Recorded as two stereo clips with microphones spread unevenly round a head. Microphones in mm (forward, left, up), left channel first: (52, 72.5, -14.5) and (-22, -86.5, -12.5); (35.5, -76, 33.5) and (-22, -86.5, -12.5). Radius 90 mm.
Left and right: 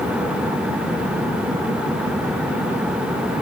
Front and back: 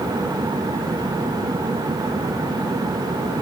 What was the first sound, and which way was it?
Only background noise.